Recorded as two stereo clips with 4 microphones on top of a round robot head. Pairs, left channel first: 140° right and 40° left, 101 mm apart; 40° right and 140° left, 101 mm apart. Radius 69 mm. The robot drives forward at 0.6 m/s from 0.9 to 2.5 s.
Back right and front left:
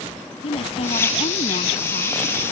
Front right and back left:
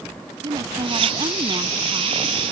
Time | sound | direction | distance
0.4 | a woman speaking | 170° right | ?